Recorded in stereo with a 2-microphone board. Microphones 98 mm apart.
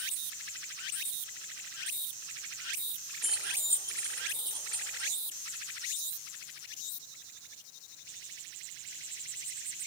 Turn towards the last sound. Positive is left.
turn(degrees=-60)  # may be behind; listen again after turning